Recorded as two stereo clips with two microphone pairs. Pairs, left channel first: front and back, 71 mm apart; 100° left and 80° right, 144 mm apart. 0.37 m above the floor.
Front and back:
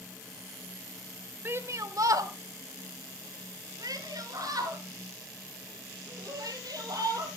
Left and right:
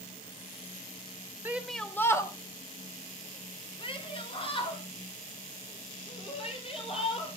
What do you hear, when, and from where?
1.4 s a shout: 145° right, 0.9 m; by 7.3 s 145° left, 8 m